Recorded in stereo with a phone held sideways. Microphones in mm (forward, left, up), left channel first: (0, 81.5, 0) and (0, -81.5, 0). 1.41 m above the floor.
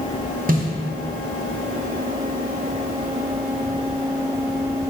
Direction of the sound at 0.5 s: 65° right (ahead or behind).